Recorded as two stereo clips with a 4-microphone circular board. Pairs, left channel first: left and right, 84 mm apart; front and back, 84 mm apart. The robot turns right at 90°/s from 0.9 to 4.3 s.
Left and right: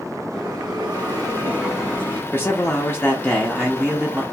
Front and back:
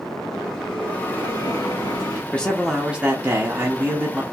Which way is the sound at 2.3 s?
60° left.